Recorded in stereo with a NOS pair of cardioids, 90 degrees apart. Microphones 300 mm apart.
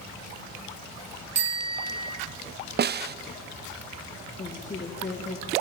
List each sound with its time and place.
1.4 s a bicycle bell: 55° right, 3.5 m
2.8 s a snare drum: 35° right, 0.6 m
4.4 s a woman speaking: 25° left, 2 m